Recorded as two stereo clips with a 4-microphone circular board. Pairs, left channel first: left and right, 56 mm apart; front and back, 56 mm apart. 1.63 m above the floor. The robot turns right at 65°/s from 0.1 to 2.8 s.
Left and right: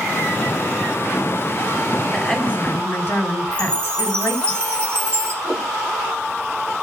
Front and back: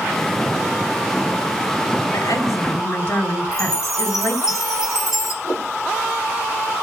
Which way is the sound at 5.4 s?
15° right.